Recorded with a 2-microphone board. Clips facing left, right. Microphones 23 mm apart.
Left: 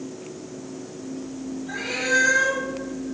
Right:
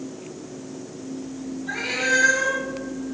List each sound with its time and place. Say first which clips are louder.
1.7 s a cat meowing: right 2 dB; 65° right (ahead or behind), 2.5 m